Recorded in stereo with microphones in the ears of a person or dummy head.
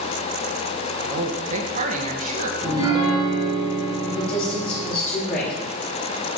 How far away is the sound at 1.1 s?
About 1.4 m.